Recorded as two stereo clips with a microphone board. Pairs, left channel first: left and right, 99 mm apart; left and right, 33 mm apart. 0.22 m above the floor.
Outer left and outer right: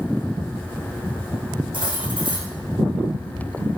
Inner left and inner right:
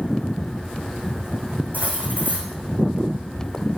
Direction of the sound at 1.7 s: 55° right (ahead or behind).